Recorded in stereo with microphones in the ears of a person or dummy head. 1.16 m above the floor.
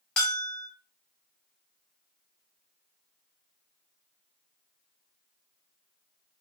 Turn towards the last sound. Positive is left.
turn(degrees=5)  # may be behind; listen again after turning